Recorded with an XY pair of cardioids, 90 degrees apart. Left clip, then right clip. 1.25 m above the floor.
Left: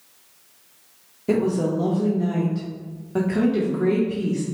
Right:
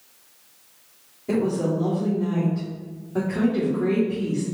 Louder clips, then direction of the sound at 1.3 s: Left 2 dB; 65° left.